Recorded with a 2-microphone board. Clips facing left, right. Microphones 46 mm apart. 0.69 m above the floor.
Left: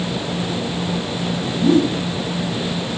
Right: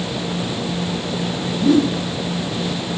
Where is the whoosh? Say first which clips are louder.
Even; 20° left (ahead or behind), 4 m.